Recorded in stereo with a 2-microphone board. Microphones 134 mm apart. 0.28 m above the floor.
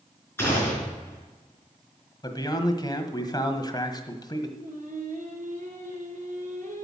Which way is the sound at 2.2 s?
30° left (ahead or behind).